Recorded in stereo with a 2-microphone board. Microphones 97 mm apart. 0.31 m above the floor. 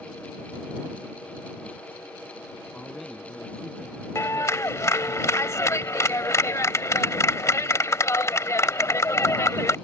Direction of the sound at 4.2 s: 35° left (ahead or behind).